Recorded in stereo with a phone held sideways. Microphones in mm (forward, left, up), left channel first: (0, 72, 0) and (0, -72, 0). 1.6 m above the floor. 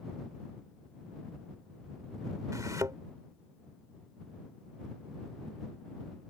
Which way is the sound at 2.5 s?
25° right (ahead or behind).